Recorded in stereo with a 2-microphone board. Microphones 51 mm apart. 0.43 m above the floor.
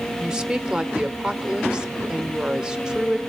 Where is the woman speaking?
15° right (ahead or behind), 0.9 m.